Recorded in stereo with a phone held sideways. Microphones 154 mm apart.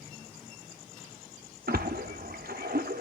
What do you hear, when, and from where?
1.7 s a splash: 85° right, 1.2 m